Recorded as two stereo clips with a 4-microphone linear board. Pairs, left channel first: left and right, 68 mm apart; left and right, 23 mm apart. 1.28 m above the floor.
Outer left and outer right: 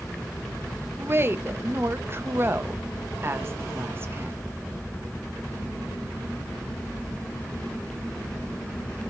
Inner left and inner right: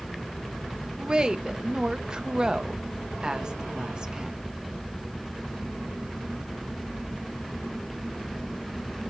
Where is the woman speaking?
35° right (ahead or behind), 0.5 m.